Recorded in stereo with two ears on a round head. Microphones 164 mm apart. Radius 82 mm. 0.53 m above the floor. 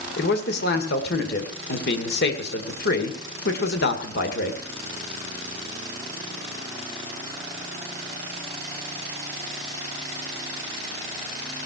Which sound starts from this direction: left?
A man speaking, at 0.2 s.